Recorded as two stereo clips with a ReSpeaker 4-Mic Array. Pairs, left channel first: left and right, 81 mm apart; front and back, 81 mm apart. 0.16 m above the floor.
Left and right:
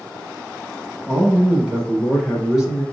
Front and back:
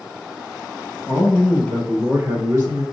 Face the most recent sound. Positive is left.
turn(degrees=-175)